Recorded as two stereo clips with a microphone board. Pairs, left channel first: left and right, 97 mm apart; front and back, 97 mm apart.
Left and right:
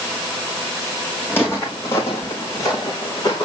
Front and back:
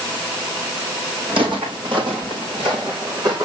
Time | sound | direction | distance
1.3 | footsteps | 155° left | 4 m